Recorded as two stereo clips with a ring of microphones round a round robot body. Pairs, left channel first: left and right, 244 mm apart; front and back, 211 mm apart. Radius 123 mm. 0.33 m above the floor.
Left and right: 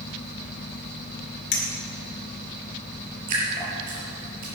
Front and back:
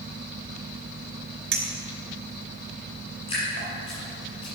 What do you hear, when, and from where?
1.5 s a clink: 150° left, 3 m
3.3 s dripping: 70° right, 4.5 m